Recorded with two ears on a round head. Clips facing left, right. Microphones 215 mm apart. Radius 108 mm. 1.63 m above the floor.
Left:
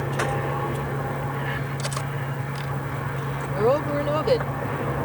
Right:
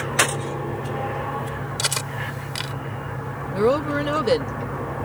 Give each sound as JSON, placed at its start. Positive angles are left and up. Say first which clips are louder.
{"t": 1.8, "sound": "cutlery clinking", "louder": "even", "side_deg": -75}
{"t": 3.5, "sound": "a woman speaking", "louder": "right 2 dB", "side_deg": -25}